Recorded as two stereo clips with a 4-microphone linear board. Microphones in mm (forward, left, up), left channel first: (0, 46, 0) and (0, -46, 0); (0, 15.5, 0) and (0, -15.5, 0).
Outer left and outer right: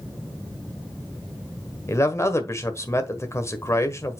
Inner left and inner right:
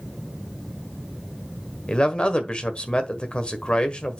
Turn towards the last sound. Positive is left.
turn(degrees=35)  # may be behind; listen again after turning